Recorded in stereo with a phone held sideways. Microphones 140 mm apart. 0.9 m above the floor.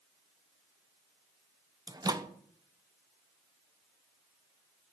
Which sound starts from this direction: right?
A microwave, at 1.9 s.